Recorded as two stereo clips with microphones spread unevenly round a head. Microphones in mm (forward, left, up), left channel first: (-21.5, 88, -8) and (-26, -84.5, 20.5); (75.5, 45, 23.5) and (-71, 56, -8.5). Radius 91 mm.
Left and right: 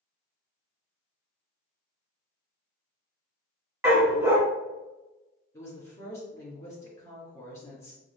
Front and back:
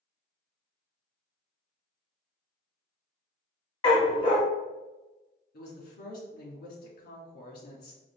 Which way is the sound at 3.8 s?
30° right.